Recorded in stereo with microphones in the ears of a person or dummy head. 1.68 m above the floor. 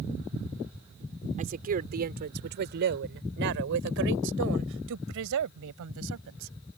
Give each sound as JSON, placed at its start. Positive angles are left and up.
{"t": 1.4, "sound": "a woman speaking", "side_deg": -40}